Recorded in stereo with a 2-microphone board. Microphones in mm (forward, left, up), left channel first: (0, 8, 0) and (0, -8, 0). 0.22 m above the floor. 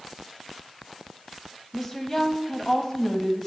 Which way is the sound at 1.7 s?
20° left (ahead or behind).